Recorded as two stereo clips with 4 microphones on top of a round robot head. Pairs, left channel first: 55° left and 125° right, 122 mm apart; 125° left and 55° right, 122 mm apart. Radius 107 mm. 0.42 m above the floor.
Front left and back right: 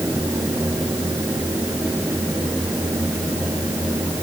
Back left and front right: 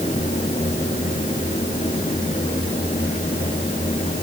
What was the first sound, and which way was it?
Only background noise.